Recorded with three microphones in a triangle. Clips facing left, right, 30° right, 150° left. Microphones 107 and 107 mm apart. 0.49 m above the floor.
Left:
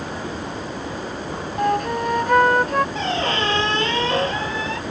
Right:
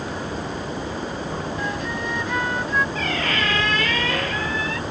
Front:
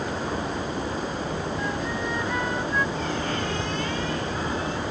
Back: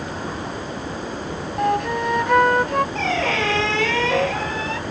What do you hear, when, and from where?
1.6 s a flute: 125° left
3.0 s a squeak: 155° left